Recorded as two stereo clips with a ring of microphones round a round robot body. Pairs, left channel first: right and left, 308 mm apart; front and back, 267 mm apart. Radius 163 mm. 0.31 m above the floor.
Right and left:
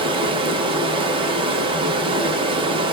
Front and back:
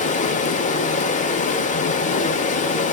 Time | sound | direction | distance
0.0 | running water | 30° left | 0.8 m